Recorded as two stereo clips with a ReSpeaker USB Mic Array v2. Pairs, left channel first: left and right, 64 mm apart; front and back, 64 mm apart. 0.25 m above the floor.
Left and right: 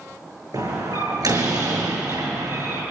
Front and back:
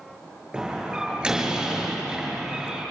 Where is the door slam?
100° right, 8.5 m.